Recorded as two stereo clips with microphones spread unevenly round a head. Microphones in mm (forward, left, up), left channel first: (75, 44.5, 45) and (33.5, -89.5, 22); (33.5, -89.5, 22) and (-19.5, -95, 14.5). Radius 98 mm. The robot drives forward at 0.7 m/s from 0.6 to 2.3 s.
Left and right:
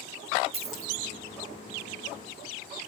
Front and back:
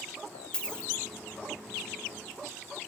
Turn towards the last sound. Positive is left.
turn(degrees=-90)